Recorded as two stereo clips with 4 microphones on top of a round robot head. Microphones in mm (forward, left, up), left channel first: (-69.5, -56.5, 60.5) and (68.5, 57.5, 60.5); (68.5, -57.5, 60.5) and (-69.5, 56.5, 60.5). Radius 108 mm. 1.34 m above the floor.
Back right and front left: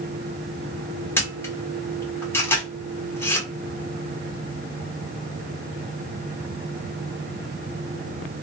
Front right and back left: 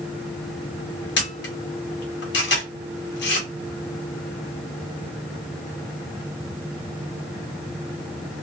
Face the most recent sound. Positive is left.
turn(degrees=-60)